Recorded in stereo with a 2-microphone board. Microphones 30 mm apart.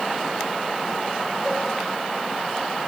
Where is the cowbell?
10° right (ahead or behind), 3 m.